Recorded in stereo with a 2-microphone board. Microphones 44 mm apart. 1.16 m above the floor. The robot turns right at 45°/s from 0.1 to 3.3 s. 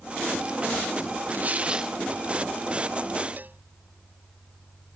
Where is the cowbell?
45° right (ahead or behind).